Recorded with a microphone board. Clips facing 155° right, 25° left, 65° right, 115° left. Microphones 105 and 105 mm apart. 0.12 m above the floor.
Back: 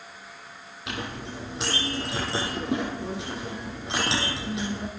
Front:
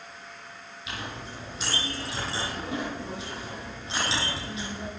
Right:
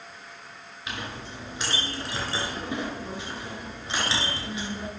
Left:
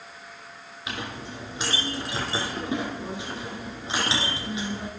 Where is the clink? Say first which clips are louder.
Back 4 dB, left 2 dB; straight behind, 2.5 m.